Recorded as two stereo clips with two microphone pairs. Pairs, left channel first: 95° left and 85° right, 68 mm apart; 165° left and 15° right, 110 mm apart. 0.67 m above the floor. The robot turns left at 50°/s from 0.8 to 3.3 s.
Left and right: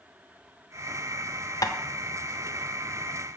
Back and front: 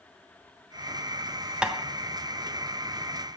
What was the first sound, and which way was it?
Tapping, 65° left.